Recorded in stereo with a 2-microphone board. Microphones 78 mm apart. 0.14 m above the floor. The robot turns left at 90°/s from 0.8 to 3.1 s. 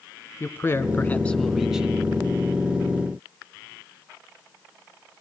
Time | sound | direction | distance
0.4 | a man speaking | 75° left | 1.2 m